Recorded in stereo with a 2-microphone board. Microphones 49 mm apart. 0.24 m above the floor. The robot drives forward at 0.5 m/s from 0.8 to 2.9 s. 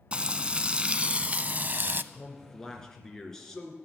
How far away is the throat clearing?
I don't hear throat clearing.